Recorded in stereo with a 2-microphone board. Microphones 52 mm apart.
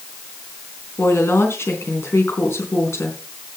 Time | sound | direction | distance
1.0 | a woman speaking | 65° left (ahead or behind) | 4 m